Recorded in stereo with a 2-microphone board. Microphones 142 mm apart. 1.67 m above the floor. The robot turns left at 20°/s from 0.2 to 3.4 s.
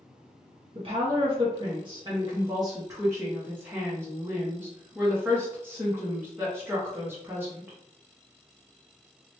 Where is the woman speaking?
105° right, 0.8 m; by 7.8 s 155° right, 0.8 m.